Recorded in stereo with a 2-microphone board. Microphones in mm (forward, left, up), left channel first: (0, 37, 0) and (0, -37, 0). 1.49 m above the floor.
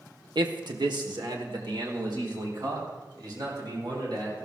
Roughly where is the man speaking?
Right.